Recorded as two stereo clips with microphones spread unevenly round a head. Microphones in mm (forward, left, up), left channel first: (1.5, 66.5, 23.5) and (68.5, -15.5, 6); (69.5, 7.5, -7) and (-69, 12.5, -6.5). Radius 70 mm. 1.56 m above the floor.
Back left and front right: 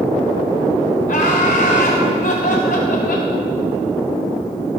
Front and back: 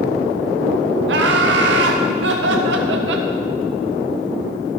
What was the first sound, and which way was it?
Laughter, 175° left.